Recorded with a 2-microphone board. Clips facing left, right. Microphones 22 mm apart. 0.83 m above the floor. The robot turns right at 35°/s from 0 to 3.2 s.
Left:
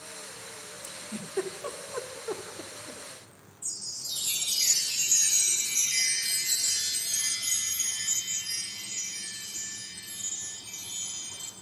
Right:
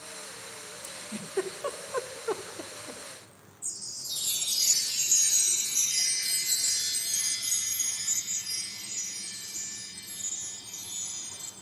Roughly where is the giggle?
Centre.